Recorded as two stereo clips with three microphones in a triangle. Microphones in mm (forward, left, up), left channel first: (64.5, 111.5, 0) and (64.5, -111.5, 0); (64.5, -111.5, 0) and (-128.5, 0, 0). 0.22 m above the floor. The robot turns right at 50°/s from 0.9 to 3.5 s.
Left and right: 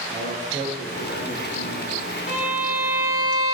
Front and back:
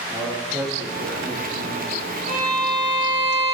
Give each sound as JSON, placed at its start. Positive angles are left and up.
{"t": 0.1, "sound": "a man speaking", "azimuth_deg": 60, "distance_m": 1.9}
{"t": 2.3, "sound": "a violin", "azimuth_deg": 105, "distance_m": 0.9}